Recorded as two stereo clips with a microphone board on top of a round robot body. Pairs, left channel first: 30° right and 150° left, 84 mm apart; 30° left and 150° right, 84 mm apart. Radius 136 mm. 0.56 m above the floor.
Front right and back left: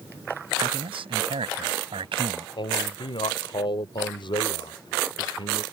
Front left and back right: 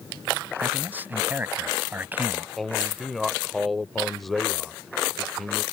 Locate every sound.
0.6 s a man speaking: 140° left
2.6 s a man speaking: 55° right